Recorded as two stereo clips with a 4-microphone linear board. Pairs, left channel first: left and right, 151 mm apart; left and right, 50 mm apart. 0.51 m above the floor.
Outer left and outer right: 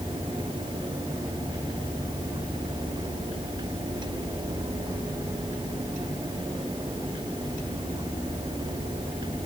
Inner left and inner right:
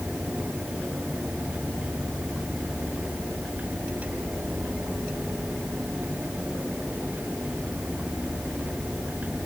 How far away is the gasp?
I don't hear a gasp.